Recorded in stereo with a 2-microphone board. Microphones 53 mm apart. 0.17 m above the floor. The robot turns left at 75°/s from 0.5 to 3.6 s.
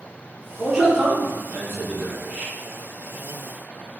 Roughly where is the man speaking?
Ahead.